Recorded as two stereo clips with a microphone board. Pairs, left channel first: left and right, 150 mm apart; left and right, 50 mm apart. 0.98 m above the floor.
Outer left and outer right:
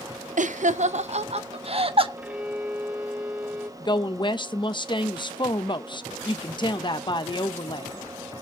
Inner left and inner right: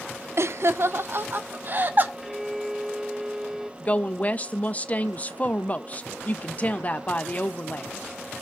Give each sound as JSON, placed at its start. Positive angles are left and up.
{"t": 0.4, "sound": "laughter", "side_deg": -55, "distance_m": 0.6}
{"t": 2.2, "sound": "a violin", "side_deg": -10, "distance_m": 1.2}
{"t": 3.8, "sound": "a woman speaking", "side_deg": 30, "distance_m": 0.9}